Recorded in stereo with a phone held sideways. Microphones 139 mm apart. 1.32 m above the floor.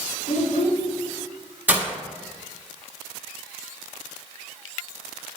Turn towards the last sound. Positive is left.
turn(degrees=-10)  # may be behind; listen again after turning